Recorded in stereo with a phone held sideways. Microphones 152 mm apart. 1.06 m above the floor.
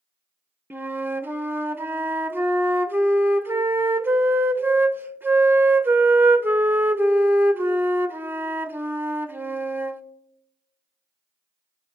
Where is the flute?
15° right (ahead or behind), 0.6 m.